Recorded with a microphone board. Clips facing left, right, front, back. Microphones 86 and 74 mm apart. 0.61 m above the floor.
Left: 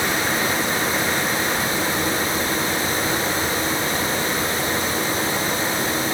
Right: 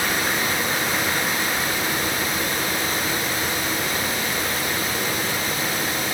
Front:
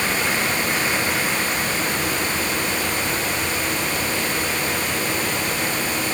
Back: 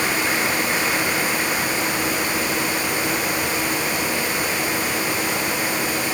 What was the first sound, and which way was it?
Only background noise.